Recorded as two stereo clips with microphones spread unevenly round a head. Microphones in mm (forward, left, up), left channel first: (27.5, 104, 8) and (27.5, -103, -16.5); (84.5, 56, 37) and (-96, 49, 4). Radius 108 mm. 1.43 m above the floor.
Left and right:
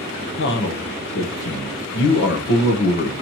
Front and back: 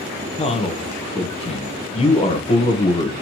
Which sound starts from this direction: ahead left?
A man speaking, at 0.4 s.